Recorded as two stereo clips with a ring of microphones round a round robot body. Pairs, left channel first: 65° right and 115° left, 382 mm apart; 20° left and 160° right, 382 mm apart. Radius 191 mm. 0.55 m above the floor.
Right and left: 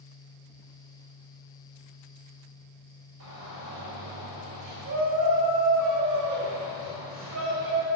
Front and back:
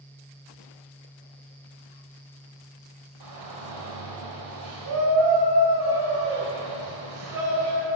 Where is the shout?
160° left, 2.5 m.